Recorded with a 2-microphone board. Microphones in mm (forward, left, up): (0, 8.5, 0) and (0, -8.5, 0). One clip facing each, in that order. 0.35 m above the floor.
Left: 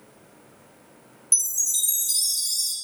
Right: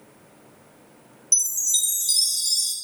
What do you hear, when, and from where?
1.3 s a chime: 45° right (ahead or behind), 1.2 m